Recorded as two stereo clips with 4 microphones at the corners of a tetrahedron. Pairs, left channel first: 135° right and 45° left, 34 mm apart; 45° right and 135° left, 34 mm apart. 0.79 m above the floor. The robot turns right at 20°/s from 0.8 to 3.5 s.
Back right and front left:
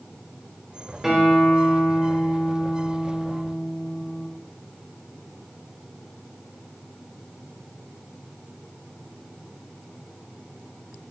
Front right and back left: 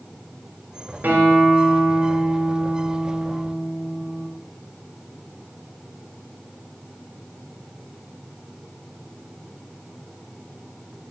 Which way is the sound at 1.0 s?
120° left.